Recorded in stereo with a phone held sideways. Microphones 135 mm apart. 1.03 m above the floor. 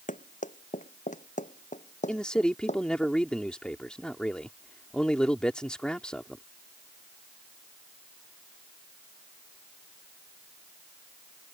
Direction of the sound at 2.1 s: 5° left (ahead or behind).